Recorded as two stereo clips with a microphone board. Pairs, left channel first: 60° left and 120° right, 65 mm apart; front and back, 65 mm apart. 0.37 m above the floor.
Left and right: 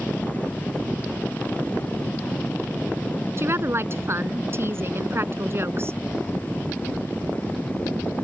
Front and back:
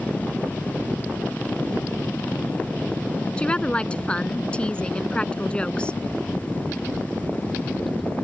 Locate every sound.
3.4 s a woman speaking: 75° right